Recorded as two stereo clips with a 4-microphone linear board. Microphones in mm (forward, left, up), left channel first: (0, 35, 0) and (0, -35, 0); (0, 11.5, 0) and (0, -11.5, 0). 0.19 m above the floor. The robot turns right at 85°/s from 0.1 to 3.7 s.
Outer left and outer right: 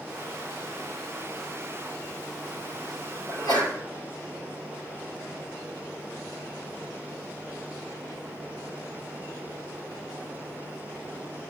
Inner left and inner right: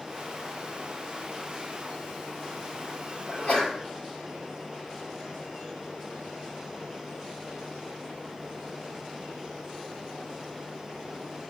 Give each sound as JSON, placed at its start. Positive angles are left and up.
{"t": 3.3, "sound": "a sneeze", "azimuth_deg": 50, "distance_m": 4.0}